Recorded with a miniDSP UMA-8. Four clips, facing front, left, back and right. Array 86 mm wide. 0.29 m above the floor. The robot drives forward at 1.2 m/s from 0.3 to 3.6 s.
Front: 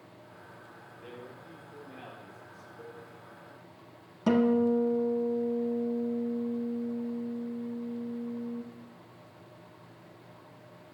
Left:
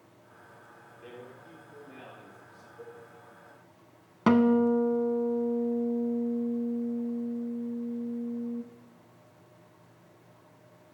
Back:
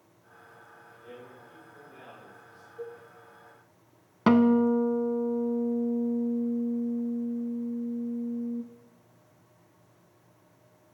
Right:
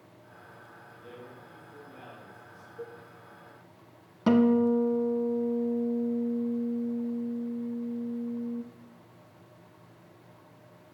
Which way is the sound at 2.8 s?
165° right.